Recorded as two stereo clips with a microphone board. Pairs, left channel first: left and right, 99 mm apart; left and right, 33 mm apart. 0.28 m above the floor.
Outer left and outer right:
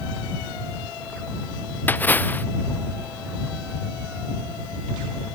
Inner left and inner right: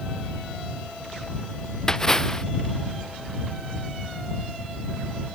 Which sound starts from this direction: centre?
A splash, at 1.9 s.